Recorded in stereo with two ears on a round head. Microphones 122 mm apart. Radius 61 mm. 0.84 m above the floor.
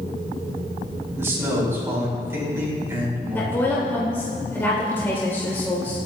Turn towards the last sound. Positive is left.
turn(degrees=15)  # may be behind; listen again after turning